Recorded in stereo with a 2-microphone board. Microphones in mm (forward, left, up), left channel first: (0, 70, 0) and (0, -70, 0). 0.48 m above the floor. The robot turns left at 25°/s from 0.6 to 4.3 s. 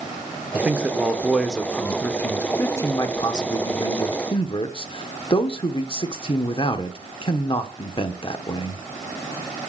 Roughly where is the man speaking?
Behind.